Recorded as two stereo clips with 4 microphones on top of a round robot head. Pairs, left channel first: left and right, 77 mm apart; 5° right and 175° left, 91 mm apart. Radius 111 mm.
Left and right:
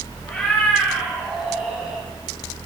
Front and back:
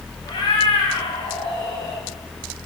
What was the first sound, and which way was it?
A cat meowing, 15° left.